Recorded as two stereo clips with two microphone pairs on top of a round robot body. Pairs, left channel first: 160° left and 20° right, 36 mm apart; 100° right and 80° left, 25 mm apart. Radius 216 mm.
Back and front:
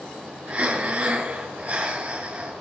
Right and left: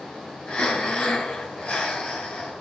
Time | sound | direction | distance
0.5 | breathing | 65° right | 3.5 m